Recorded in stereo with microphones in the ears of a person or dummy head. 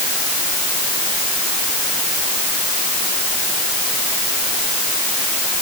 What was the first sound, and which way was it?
Only background noise.